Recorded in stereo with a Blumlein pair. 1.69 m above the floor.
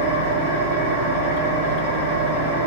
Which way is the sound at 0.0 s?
50° right.